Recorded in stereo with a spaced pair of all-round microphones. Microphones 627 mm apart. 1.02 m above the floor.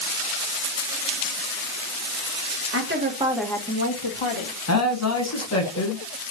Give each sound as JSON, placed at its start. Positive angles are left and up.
{"t": 2.7, "sound": "a woman speaking", "side_deg": -20, "distance_m": 1.0}
{"t": 4.7, "sound": "a man speaking", "side_deg": 25, "distance_m": 0.9}